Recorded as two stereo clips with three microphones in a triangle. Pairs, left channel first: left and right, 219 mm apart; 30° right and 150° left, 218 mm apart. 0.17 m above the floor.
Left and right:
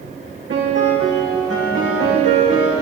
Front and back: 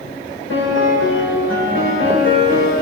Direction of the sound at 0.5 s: 60° right.